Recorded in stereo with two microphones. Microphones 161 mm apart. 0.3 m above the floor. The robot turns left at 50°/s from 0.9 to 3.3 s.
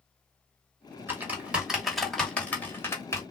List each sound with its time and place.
1.1 s typing on a keyboard: 15° right (ahead or behind), 1.3 m; by 3.2 s 20° left (ahead or behind), 1.3 m